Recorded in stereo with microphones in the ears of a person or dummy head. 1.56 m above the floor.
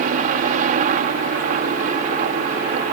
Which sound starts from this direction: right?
A helicopter, at 0.0 s.